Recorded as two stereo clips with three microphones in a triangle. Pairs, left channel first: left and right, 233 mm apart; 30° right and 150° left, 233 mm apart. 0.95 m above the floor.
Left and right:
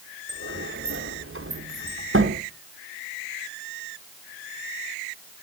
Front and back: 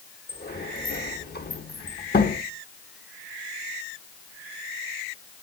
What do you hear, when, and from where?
0.3 s a sliding door: 75° right, 1.1 m